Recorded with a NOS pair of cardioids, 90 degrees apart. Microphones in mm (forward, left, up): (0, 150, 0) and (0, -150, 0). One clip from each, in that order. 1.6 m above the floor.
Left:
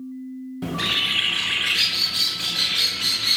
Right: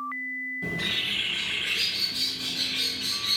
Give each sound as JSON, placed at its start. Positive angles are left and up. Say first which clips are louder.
{"t": 0.6, "sound": "a bird", "louder": "left 7 dB", "azimuth_deg": 50, "distance_m": 0.6}